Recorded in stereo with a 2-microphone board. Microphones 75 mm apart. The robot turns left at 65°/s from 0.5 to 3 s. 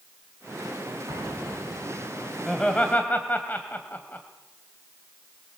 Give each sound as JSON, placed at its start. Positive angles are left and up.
{"t": 1.1, "sound": "an explosion", "azimuth_deg": -75, "distance_m": 8.0}
{"t": 2.5, "sound": "laughter", "side_deg": 0, "distance_m": 1.9}